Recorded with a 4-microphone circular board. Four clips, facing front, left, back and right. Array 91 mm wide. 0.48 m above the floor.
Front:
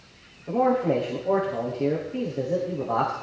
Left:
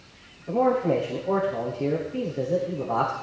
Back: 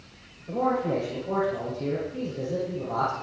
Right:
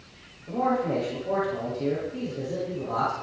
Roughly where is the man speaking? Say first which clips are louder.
Left 3 dB, front 4 dB; ahead.